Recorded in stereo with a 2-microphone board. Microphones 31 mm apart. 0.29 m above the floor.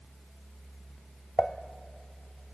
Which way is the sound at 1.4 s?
20° left (ahead or behind).